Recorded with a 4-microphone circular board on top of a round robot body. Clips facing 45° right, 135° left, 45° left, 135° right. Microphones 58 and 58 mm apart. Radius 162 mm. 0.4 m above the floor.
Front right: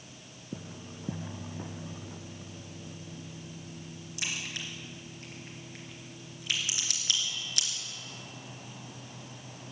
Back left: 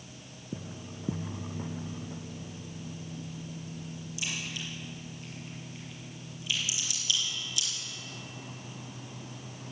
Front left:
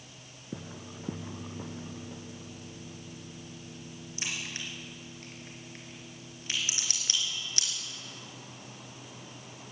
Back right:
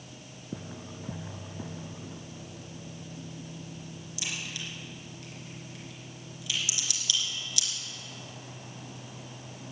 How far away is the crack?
About 3.5 m.